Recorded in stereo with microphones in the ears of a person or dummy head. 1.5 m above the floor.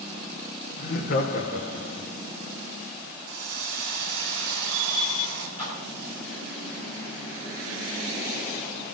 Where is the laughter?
50° left (ahead or behind), 1.3 m.